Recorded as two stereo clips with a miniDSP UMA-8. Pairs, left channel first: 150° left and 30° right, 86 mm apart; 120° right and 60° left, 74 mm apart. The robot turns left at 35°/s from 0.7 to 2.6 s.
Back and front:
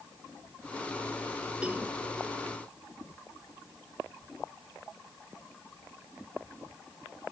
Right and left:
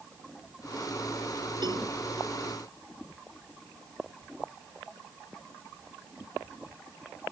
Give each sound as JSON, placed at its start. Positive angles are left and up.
{"t": 1.6, "sound": "a cowbell", "azimuth_deg": 45}